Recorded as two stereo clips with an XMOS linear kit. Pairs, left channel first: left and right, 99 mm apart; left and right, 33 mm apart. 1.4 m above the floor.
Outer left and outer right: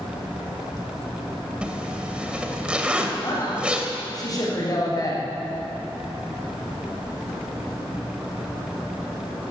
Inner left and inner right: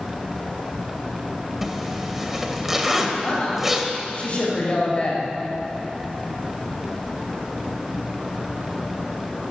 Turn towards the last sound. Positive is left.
turn(degrees=40)  # may be behind; listen again after turning